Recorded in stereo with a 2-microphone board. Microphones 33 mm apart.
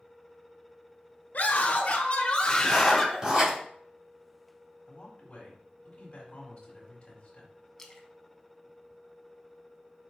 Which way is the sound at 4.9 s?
35° left (ahead or behind).